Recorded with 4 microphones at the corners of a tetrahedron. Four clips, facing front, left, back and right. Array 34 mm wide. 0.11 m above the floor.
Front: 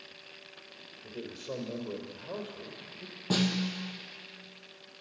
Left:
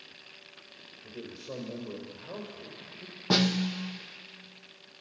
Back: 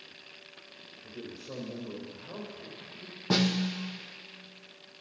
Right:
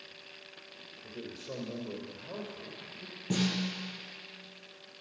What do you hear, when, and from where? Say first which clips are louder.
1.0 s a man speaking: left 1 dB, front 3 dB; 10° left, 3.5 m
3.3 s a snare drum: left 6 dB, back 2 dB; 105° left, 1.3 m